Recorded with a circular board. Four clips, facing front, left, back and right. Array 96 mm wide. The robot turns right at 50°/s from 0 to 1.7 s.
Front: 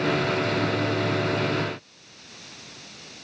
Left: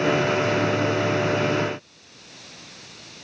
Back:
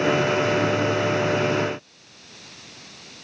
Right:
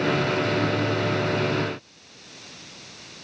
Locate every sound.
Only background noise.